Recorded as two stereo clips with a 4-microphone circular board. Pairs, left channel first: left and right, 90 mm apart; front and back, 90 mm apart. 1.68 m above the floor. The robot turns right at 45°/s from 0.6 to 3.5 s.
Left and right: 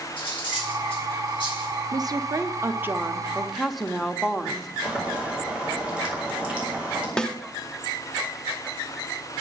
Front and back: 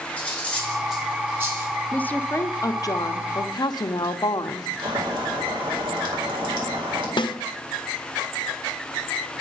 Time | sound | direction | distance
0.2 | cutlery clinking | 80° left | 5.5 m
1.9 | a woman speaking | 70° right | 0.7 m
4.8 | boiling | 165° right | 4 m
7.2 | a snare drum | 10° left | 0.7 m